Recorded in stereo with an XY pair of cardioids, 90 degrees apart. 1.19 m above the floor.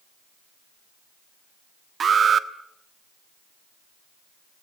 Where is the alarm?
50° right, 1.4 m.